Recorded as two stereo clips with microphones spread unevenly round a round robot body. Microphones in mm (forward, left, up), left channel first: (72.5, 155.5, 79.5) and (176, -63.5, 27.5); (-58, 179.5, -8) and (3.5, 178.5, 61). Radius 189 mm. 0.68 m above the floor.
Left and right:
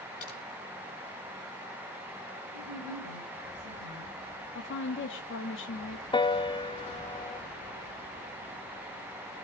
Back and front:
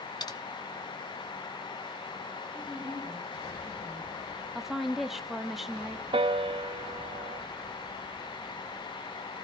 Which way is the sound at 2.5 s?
75° right.